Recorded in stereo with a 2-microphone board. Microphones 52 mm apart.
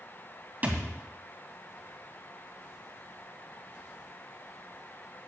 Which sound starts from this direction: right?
A thud, at 0.6 s.